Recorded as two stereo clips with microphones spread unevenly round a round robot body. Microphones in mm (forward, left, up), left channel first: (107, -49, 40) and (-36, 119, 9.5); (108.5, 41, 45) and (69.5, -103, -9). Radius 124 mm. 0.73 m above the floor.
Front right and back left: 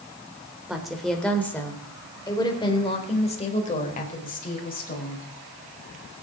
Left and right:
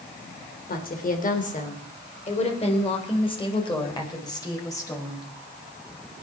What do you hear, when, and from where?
0.7 s a woman speaking: 45° left, 3.5 m; by 5.2 s straight ahead, 5 m